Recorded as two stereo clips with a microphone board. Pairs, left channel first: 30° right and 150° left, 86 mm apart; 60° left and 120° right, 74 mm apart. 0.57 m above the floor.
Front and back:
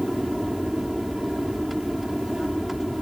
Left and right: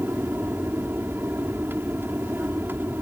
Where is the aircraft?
125° right.